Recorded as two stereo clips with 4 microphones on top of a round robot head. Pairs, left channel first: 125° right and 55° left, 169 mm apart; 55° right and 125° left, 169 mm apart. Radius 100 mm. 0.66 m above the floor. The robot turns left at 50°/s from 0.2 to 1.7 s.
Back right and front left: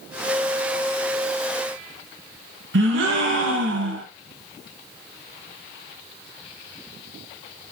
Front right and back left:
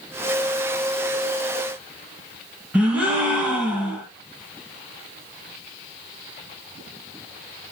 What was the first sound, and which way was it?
A gasp, 45° left.